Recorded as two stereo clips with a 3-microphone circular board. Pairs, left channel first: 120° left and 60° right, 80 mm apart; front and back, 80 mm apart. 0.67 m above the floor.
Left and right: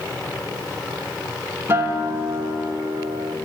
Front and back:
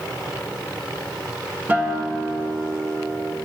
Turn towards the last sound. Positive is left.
turn(degrees=-115)